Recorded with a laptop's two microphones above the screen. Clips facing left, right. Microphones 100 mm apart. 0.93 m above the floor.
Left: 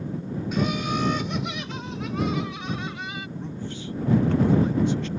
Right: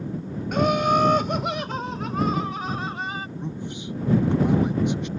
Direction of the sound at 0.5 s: 55° right (ahead or behind).